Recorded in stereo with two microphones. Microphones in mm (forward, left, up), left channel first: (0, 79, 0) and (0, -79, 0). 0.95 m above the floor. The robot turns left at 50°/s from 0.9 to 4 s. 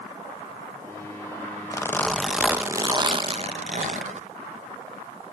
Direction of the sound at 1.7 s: 25° left.